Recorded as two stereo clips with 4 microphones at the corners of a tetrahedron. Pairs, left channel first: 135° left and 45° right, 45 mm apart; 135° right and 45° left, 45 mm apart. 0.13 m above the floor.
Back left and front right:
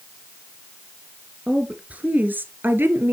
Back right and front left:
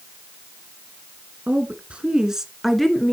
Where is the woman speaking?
10° left, 1.6 m; by 3.1 s 60° right, 1.8 m.